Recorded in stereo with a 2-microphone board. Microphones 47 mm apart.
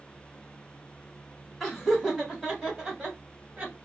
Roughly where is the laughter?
Centre.